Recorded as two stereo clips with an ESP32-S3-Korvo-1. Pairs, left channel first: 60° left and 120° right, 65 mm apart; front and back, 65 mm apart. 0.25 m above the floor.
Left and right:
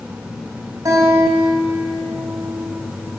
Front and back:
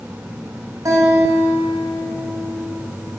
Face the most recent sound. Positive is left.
turn(degrees=-155)